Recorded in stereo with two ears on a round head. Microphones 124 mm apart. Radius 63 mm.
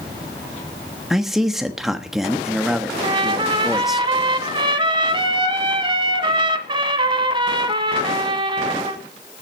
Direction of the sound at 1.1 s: 5° right (ahead or behind).